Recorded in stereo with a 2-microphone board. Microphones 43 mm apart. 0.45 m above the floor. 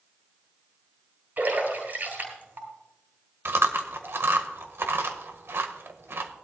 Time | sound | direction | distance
1.4 | a splash | 45° right (ahead or behind) | 4.5 m
3.5 | chewing | 60° right (ahead or behind) | 1.3 m